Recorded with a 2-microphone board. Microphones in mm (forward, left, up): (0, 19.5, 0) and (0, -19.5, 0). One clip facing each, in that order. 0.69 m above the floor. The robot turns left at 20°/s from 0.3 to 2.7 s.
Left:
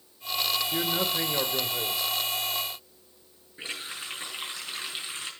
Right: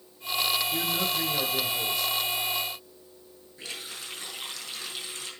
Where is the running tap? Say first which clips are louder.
Left 3 dB; 30° left (ahead or behind), 5.5 m.